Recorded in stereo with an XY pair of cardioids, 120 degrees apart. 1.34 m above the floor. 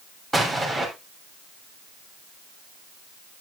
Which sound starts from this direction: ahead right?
An explosion, at 0.3 s.